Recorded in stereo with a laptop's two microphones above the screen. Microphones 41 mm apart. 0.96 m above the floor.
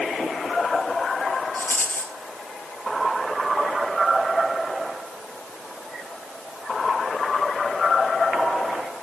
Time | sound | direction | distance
1.6 | a rattle | 40° left (ahead or behind) | 4 m